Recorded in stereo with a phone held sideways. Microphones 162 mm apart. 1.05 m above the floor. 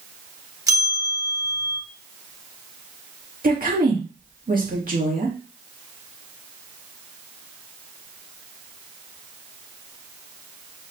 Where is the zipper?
I don't hear a zipper.